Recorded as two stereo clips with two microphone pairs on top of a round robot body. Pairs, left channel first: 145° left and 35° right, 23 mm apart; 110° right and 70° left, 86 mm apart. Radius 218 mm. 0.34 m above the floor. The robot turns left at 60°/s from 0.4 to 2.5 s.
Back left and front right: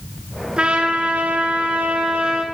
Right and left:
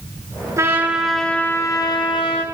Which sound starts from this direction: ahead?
A trumpet, at 0.6 s.